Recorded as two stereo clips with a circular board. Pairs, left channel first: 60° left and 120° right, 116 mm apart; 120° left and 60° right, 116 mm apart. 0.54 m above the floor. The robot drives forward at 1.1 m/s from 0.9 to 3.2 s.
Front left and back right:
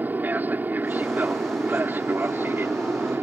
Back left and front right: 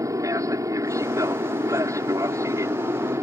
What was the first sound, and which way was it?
An aircraft, 65° right.